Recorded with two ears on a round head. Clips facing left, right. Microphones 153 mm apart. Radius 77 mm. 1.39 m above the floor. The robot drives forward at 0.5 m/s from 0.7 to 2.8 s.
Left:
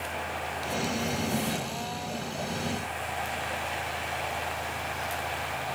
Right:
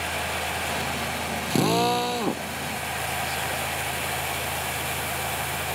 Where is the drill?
80° right; by 2.5 s 75° right (ahead or behind).